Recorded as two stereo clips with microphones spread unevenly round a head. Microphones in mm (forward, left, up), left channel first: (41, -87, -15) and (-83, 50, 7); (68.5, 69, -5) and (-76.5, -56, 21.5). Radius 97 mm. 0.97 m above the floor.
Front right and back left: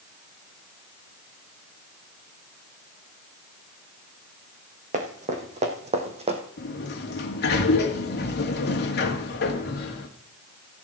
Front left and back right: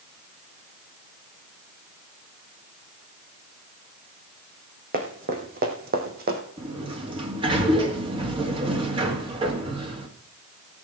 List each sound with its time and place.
4.9 s running footsteps: straight behind, 3.5 m; by 6.4 s 175° right, 2.5 m
6.6 s a sliding door: 70° right, 2 m